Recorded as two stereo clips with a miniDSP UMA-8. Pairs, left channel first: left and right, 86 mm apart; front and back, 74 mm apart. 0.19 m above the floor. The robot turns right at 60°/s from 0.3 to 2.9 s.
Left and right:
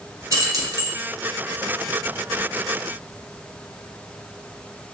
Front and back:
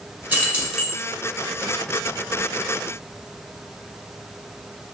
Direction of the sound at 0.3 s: 125° right.